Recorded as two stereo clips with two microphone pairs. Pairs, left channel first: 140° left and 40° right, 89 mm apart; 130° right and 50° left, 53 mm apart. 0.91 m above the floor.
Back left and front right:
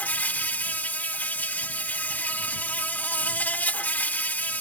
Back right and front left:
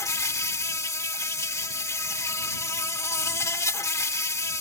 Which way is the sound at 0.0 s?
150° right.